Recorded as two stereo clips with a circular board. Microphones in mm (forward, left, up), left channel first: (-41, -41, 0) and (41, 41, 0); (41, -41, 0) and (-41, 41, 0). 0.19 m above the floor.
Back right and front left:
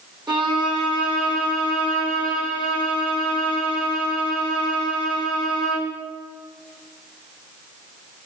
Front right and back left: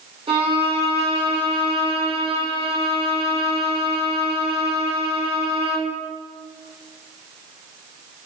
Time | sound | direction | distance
0.3 | a violin | 95° left | 2.5 m